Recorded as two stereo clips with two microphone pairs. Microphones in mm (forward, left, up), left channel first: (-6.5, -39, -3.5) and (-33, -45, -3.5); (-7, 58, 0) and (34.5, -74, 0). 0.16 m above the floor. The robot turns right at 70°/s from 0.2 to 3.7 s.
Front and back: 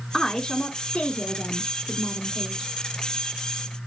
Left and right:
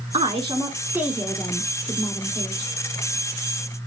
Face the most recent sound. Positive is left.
turn(degrees=-175)